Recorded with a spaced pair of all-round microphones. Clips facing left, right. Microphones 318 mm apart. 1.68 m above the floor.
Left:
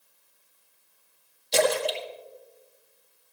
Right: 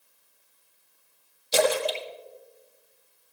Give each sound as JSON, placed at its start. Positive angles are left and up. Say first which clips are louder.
{"t": 1.5, "sound": "a splash", "louder": "even", "side_deg": -5, "distance_m": 1.6}